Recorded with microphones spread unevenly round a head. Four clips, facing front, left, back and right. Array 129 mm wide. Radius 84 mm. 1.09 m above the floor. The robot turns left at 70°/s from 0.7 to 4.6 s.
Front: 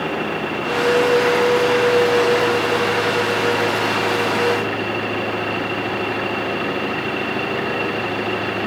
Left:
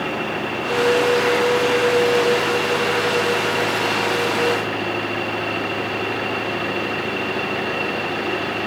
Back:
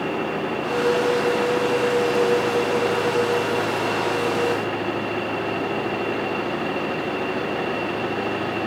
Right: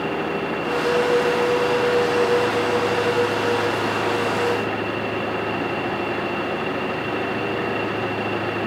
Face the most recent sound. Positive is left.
No sound to turn to.